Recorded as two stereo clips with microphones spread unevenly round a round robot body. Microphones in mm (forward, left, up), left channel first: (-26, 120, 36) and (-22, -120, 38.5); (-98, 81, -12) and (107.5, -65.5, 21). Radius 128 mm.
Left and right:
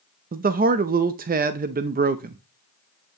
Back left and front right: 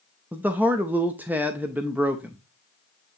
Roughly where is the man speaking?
Behind right.